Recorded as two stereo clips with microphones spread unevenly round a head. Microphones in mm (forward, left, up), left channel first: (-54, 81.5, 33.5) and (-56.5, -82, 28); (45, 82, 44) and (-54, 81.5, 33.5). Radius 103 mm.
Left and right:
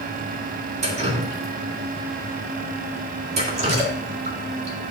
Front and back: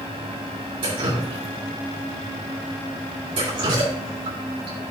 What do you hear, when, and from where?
0.8 s dripping: 140° right, 2.0 m